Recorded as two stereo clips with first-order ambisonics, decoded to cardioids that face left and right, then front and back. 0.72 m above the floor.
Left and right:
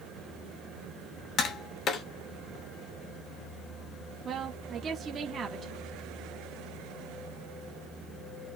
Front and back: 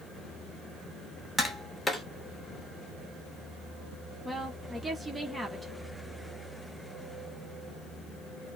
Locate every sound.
1.4 s tapping: 70° left, 1.1 m
4.2 s a woman speaking: 100° right, 0.7 m